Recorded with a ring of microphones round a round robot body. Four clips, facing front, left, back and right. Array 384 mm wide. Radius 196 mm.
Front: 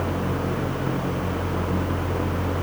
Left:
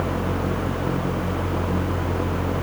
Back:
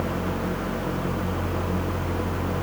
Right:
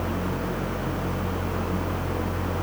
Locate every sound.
Only background noise.